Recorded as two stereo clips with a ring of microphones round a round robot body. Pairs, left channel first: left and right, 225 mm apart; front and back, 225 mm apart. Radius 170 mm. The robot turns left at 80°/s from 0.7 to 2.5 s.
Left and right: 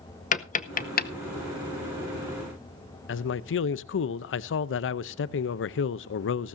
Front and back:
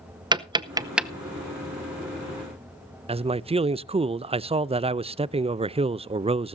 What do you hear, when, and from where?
0.3 s tapping: 120° left, 0.8 m; by 1.1 s 85° left, 0.8 m
3.1 s a man speaking: 115° left, 0.5 m